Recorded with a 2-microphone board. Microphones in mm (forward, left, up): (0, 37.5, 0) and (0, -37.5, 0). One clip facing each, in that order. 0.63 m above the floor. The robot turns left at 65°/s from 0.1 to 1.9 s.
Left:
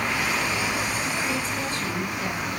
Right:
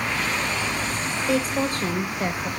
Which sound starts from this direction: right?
A woman speaking, at 1.3 s.